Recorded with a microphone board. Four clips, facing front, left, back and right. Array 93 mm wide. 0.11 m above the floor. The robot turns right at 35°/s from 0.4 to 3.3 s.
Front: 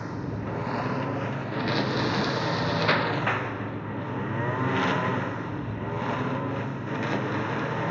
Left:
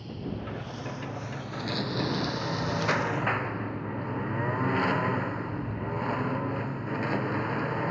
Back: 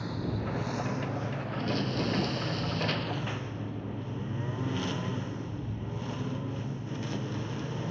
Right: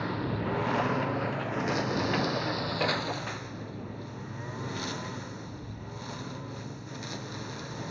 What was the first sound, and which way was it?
A lawn mower, 65° right.